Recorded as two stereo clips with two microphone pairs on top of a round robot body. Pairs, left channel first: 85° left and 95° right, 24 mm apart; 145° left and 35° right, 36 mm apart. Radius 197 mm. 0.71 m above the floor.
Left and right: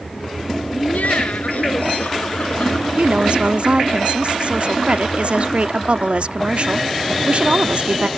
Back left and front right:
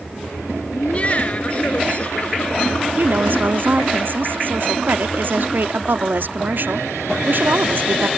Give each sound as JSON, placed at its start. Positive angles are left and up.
{"t": 0.7, "sound": "laughter", "azimuth_deg": 95}
{"t": 3.0, "sound": "a woman speaking", "azimuth_deg": -60}